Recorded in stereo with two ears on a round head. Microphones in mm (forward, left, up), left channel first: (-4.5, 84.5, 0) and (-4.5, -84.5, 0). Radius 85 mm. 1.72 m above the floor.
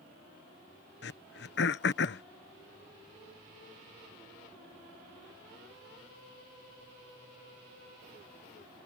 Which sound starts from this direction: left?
Throat clearing, at 1.0 s.